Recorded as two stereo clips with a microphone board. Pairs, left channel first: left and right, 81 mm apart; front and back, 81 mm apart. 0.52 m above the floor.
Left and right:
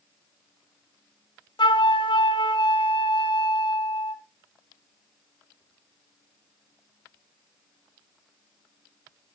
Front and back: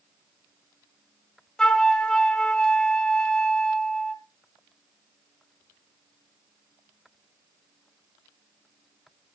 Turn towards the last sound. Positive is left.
turn(degrees=80)